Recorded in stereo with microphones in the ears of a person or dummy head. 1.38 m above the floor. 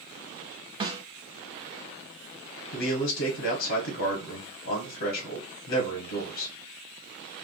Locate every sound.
0.8 s a snare drum: 30° right (ahead or behind), 0.5 m
2.7 s a man speaking: 70° left (ahead or behind), 1.2 m